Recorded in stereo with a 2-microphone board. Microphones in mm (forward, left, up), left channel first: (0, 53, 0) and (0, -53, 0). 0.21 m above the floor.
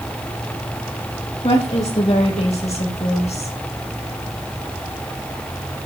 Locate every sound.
1.4 s a woman speaking: 65° left (ahead or behind), 7 m; by 3.6 s 70° left (ahead or behind), 5 m